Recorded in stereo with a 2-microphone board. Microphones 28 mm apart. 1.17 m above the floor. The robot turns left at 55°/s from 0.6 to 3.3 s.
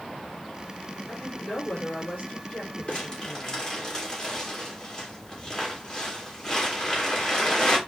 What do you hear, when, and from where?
1.1 s a woman speaking: 135° left, 6.5 m; by 3.6 s 15° left, 6.5 m
2.9 s crumpling: 45° left (ahead or behind), 3 m; by 7.8 s 25° left (ahead or behind), 3 m